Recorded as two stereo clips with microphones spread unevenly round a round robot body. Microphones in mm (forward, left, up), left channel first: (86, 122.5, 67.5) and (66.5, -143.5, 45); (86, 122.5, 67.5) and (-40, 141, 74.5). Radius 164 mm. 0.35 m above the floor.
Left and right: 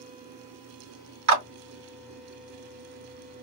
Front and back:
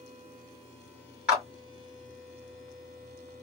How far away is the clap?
About 2 m.